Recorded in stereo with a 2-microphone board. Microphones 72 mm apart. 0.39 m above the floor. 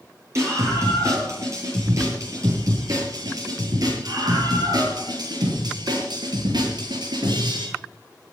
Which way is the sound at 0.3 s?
40° right (ahead or behind).